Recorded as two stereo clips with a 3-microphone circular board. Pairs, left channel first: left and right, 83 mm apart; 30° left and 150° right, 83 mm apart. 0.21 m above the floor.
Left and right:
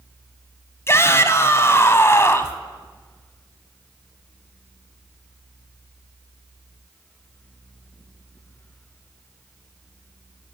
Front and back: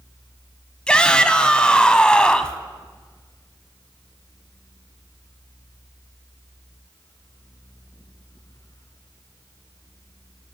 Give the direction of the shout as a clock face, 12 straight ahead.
9 o'clock.